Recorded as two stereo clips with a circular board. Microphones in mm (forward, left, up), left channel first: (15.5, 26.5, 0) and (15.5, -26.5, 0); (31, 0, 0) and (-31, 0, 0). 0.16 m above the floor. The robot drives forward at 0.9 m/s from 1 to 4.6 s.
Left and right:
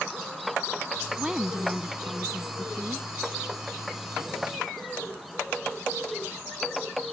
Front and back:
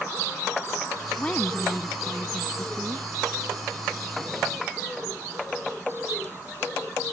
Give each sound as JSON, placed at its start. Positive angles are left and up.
{"t": 1.2, "sound": "a woman speaking", "azimuth_deg": -30}